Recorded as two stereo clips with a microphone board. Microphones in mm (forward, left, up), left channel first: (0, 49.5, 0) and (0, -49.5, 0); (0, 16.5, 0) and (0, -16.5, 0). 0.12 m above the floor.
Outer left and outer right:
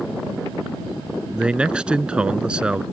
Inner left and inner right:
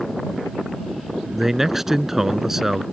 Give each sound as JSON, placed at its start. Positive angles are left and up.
{"t": 1.3, "sound": "a man speaking", "side_deg": -10}